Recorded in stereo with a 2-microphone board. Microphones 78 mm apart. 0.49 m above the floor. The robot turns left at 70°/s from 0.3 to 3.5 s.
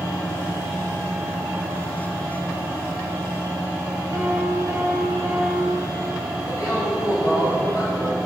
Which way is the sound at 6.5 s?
55° left (ahead or behind).